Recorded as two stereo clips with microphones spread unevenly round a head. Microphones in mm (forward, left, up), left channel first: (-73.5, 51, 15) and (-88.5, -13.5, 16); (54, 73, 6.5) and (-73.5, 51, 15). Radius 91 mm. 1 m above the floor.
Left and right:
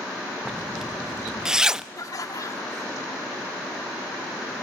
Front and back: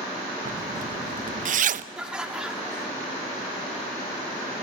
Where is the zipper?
175° left, 0.7 m.